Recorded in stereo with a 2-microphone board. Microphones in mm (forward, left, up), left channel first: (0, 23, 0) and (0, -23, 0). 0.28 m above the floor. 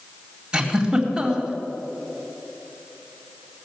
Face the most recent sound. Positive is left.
turn(degrees=-20)  # may be behind; listen again after turning